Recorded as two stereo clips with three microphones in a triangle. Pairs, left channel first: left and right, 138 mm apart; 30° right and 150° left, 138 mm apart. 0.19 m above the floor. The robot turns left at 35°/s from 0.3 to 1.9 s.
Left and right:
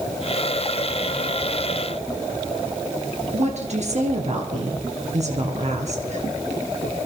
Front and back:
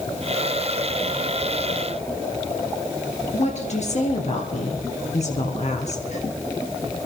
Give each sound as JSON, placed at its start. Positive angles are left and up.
{"t": 3.3, "sound": "a woman speaking", "azimuth_deg": -60, "distance_m": 3.0}